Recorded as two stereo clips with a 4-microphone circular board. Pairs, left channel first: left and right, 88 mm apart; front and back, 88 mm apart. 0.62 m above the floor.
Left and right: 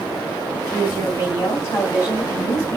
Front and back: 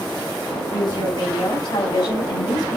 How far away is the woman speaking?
About 4.5 m.